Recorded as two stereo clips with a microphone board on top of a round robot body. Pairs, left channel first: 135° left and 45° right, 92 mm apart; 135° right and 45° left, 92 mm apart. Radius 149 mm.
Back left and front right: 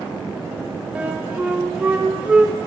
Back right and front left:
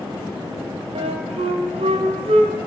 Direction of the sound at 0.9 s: 35° left.